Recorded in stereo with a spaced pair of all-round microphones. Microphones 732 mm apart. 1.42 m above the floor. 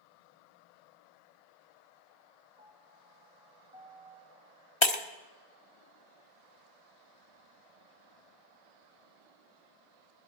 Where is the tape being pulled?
No tape being pulled in this recording.